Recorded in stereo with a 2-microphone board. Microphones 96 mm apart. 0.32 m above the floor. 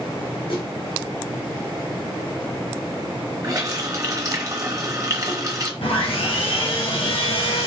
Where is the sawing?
80° left, 1.9 m.